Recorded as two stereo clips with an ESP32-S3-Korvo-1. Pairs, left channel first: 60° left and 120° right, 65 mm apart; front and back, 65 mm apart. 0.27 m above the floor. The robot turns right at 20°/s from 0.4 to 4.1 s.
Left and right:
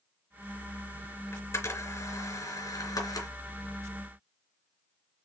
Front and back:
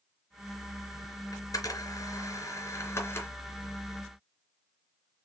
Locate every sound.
1.3 s a camera shutter: 15° left, 2.5 m; by 3.3 s 50° left, 2.5 m